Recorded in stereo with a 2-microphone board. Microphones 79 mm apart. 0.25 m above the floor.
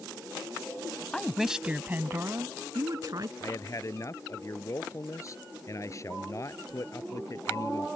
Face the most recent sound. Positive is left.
turn(degrees=40)  # may be behind; listen again after turning